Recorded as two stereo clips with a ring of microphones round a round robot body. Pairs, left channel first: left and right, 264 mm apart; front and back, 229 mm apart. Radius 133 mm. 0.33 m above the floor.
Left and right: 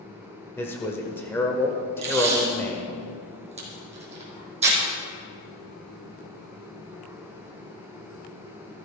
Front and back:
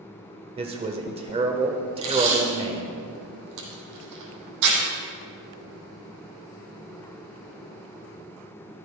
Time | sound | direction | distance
0.6 | a man speaking | 160° left | 1.0 m
2.0 | tape being pulled | 160° right | 3 m